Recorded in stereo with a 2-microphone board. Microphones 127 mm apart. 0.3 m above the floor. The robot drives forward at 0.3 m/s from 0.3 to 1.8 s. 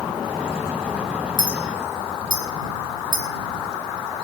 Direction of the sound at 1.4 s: 45° right (ahead or behind).